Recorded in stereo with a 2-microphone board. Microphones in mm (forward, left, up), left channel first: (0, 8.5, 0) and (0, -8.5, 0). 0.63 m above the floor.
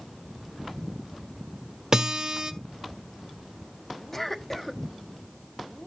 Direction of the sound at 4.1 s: 25° left (ahead or behind).